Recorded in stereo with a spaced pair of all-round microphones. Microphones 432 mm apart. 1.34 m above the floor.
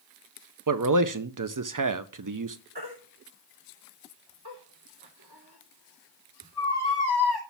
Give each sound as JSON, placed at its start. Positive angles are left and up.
{"t": 0.7, "sound": "a man speaking", "side_deg": -45, "distance_m": 0.6}
{"t": 2.8, "sound": "a baby crying", "side_deg": -60, "distance_m": 2.5}